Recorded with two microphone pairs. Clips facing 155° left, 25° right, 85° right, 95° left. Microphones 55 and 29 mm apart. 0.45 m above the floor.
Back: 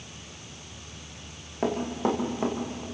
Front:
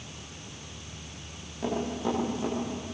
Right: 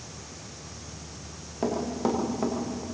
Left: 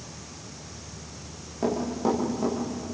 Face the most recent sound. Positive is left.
turn(degrees=-155)